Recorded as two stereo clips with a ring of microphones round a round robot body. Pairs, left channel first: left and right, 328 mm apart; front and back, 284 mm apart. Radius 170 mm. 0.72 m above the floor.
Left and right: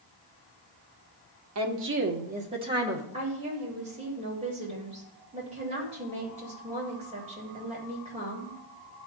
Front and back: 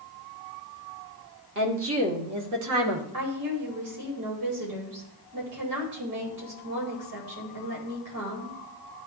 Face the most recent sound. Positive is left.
turn(degrees=-160)